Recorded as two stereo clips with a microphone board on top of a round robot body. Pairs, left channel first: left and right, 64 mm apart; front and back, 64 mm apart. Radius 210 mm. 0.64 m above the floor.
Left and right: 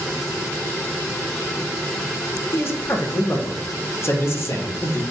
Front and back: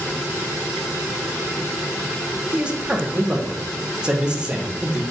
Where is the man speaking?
110° left, 1.1 m.